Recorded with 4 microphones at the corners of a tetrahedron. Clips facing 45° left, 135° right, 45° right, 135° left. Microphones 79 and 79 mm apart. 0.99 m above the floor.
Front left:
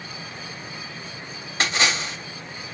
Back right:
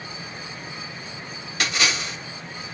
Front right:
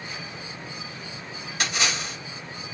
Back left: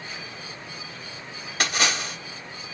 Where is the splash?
100° left, 1.3 m.